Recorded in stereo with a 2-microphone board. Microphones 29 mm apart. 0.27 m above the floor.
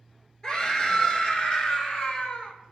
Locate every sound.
0.4 s a scream: 25° left (ahead or behind), 4 m; by 2.5 s 45° left (ahead or behind), 2 m